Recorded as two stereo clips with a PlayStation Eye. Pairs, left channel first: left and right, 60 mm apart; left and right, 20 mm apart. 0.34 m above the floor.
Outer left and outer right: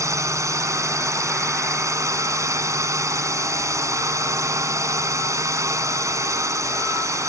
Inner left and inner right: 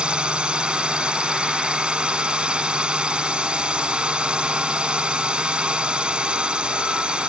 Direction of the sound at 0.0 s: 60° right (ahead or behind).